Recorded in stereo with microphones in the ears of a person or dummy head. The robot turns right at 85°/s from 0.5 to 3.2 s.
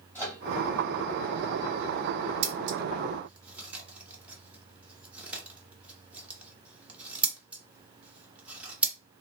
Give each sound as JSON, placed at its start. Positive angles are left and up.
{"t": 0.1, "sound": "a microwave", "side_deg": 15, "distance_m": 1.5}
{"t": 2.4, "sound": "scissors", "side_deg": -60, "distance_m": 0.6}